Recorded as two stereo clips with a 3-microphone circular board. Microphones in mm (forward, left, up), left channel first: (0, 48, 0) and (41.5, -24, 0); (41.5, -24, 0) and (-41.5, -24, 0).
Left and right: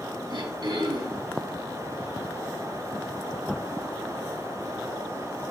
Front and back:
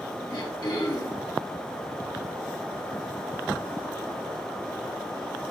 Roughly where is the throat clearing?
Ahead right.